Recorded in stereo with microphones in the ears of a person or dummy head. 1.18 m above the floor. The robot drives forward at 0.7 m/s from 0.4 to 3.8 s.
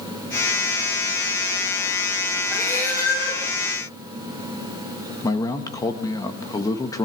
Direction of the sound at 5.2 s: 20° left (ahead or behind).